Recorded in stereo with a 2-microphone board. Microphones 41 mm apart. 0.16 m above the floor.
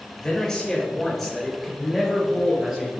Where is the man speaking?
15° left (ahead or behind), 3.5 m; by 2.9 s 15° right (ahead or behind), 4 m.